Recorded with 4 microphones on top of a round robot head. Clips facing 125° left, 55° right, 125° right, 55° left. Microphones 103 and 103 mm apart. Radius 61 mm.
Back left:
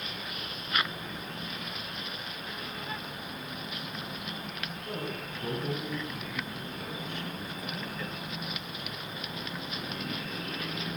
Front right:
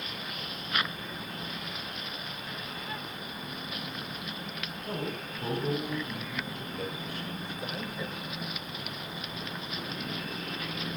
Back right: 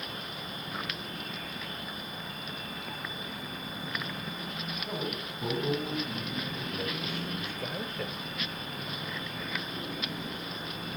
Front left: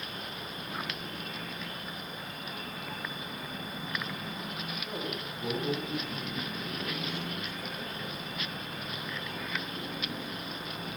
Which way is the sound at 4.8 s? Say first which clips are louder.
Front right 2 dB, back right 3 dB; 80° right.